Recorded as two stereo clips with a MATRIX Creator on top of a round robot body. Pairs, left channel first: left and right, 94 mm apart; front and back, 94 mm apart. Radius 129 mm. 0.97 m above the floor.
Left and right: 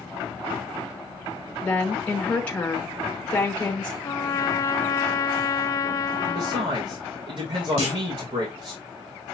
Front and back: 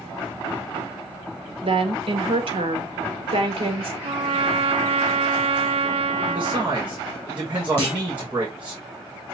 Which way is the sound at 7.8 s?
70° right.